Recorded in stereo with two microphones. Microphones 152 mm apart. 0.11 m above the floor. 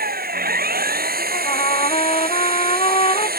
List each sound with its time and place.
0.0 s an engine running: 80° right
1.3 s a trumpet: 40° left (ahead or behind)